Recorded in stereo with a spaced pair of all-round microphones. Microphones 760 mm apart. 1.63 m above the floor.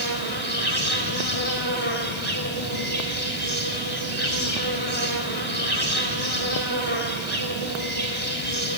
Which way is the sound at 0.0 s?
40° right (ahead or behind).